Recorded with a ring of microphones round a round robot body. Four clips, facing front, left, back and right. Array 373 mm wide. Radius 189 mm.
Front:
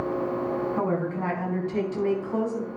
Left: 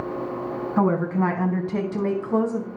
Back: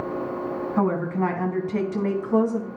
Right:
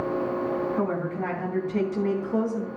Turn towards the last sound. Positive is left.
turn(degrees=125)